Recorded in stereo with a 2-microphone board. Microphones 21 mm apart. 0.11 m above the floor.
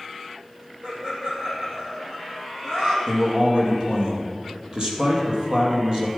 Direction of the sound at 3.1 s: 40° right (ahead or behind).